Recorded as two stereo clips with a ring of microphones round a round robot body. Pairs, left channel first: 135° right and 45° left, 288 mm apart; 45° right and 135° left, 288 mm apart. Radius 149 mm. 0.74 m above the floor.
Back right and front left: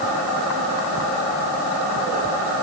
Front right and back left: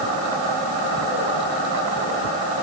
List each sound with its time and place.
Only background noise.